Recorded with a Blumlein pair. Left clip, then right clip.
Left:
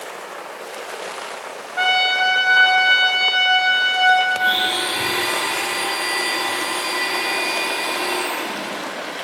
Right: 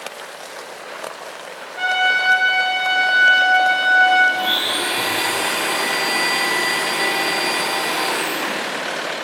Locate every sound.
1.8 s a trumpet: 65° left, 1.3 m
4.3 s a blender: 20° right, 2.5 m